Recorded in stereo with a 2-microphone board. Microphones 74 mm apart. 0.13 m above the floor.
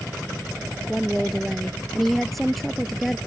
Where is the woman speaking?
Centre (ahead or behind).